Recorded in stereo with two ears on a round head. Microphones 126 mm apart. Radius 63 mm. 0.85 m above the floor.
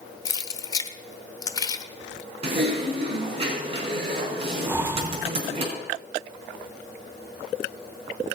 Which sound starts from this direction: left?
Keys jangling, at 0.2 s.